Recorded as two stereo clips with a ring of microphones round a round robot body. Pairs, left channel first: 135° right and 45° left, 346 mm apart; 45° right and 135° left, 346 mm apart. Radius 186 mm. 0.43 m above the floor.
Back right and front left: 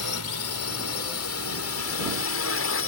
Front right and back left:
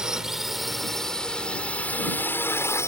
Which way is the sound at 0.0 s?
140° right.